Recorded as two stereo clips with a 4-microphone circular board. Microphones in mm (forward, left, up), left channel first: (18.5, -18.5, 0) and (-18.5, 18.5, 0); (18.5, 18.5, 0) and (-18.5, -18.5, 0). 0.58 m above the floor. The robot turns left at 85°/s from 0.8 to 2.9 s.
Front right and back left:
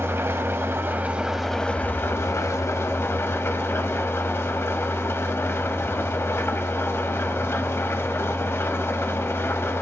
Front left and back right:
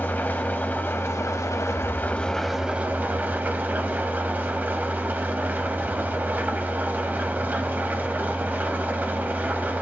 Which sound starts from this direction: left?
An engine running, at 0.0 s.